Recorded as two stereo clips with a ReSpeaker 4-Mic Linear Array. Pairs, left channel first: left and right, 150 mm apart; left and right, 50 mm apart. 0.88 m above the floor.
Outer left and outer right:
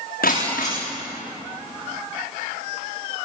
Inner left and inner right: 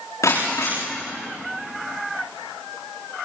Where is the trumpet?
No trumpet in this recording.